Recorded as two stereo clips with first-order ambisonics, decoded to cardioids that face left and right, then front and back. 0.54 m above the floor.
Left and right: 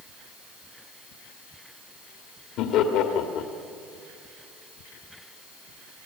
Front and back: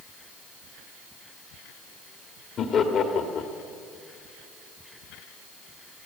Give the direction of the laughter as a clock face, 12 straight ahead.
10 o'clock.